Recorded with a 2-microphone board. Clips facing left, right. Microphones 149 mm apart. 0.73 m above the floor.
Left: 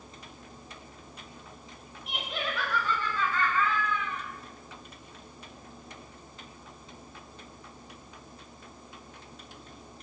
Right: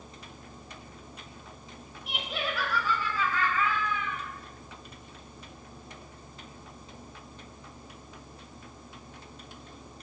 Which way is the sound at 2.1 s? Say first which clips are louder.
Right 1 dB; centre (ahead or behind).